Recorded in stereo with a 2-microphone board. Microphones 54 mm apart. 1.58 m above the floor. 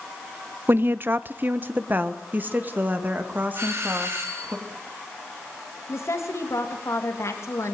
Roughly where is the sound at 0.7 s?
Right.